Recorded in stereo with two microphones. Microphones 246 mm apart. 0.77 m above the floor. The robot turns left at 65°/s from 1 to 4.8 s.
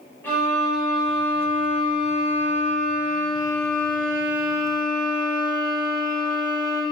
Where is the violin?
170° left, 2.5 m; by 6.8 s 75° right, 2.5 m.